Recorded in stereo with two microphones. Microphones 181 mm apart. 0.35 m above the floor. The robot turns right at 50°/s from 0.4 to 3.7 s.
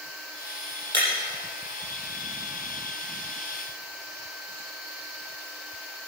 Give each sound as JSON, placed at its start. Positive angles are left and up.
{"t": 0.9, "sound": "breaking glass", "side_deg": -75, "distance_m": 5.5}